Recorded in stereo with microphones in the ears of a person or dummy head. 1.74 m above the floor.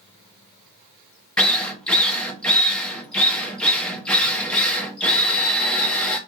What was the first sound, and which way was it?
A drill, 5° left (ahead or behind).